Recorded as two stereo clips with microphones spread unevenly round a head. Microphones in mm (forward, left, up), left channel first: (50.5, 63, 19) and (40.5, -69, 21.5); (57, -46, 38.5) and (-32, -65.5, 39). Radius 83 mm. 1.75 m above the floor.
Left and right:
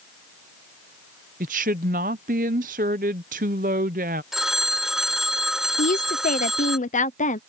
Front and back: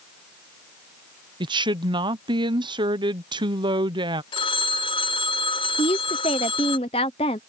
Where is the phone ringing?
10° right.